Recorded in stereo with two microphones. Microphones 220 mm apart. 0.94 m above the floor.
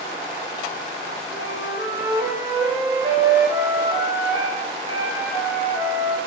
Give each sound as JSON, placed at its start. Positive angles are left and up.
{"t": 1.3, "sound": "a flute", "side_deg": -20, "distance_m": 7.5}